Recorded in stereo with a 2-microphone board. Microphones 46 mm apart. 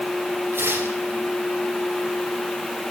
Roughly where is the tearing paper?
Right.